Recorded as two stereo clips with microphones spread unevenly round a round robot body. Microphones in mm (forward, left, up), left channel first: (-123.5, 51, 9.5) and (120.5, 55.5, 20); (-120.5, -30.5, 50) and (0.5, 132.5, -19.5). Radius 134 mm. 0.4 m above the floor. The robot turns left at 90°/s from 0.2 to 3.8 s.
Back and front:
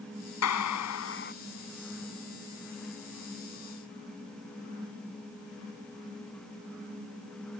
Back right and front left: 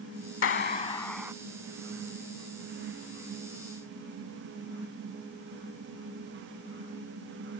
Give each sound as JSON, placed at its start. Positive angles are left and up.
{"t": 0.4, "sound": "a clap", "azimuth_deg": -145}